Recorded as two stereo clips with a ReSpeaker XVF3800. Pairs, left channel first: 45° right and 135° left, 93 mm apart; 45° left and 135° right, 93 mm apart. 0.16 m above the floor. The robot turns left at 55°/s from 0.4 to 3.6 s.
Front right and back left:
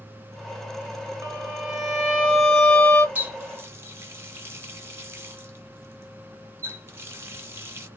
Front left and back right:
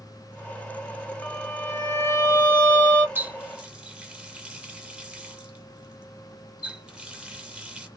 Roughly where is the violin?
Left.